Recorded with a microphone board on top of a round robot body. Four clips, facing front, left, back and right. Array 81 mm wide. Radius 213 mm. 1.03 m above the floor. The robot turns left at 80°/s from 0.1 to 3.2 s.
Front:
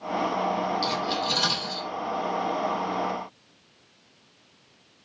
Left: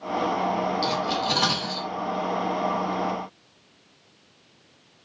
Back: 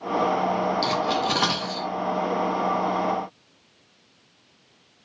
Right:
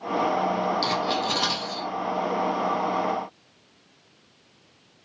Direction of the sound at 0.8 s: 135° right.